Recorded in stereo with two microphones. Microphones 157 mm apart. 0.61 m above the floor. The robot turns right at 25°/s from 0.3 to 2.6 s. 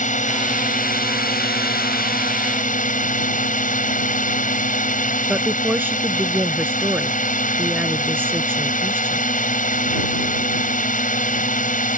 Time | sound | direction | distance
0.0 | a drone | 60° left | ?
5.3 | a woman speaking | 15° right (ahead or behind) | ?